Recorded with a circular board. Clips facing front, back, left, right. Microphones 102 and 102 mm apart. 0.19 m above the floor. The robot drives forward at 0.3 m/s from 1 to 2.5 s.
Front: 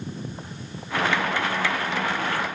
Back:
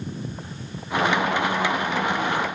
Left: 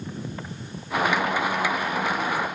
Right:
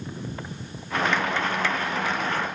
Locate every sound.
Only background noise.